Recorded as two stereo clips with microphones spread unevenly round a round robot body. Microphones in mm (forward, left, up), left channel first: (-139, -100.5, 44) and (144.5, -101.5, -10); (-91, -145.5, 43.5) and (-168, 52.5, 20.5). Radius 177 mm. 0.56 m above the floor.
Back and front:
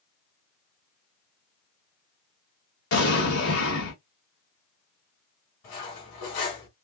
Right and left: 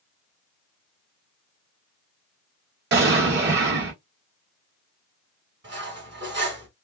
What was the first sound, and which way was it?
An explosion, 135° left.